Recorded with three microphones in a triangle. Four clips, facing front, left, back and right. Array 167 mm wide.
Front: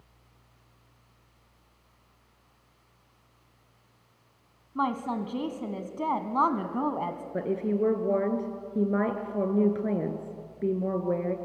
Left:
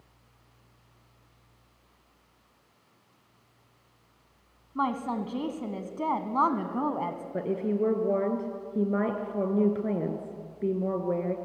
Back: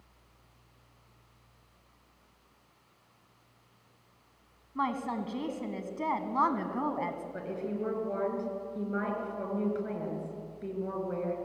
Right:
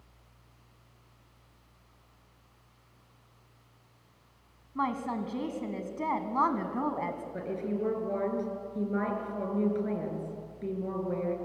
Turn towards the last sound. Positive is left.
turn(degrees=35)